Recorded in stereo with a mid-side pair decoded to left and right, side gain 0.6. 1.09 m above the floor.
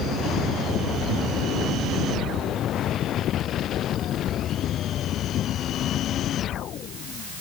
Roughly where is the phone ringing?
I don't hear a phone ringing.